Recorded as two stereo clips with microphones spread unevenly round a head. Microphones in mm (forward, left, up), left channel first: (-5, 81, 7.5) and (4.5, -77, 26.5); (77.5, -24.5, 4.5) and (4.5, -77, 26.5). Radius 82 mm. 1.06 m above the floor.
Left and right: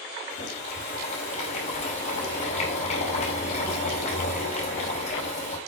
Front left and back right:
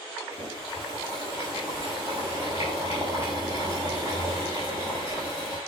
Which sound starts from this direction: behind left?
Boiling, at 0.3 s.